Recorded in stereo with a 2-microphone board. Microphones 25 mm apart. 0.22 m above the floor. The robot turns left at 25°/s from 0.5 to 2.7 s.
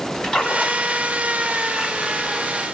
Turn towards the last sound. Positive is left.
turn(degrees=-15)